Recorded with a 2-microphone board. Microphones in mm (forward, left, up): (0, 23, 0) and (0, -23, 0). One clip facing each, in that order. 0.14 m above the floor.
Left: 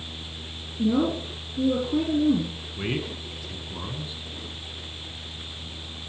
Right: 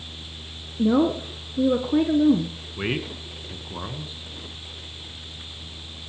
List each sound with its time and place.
0.8 s a woman speaking: 55° right (ahead or behind), 2 m
2.8 s a man speaking: 30° right (ahead or behind), 1.8 m